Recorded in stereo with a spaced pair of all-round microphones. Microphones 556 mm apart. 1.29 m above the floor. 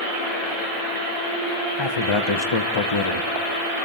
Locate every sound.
1.8 s a man speaking: 55° left (ahead or behind), 1.1 m